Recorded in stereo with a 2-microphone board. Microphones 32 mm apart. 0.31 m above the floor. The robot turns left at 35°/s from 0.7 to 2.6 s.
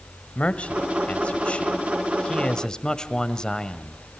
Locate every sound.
0.3 s a man speaking: 105° left, 1.5 m; by 4.0 s 35° left, 1.5 m